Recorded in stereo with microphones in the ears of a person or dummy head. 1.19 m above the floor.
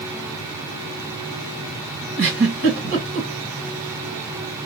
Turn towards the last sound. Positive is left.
turn(degrees=-55)  # may be behind; listen again after turning